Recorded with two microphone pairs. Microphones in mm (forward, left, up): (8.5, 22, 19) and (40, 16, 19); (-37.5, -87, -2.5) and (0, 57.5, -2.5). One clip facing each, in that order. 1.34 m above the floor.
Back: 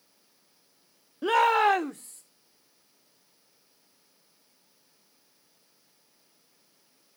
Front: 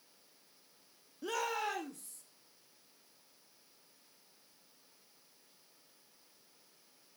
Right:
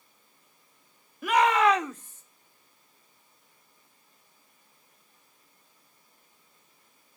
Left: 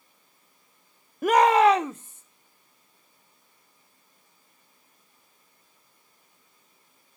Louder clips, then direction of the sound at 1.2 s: Back 15 dB, left 4 dB; 120° left.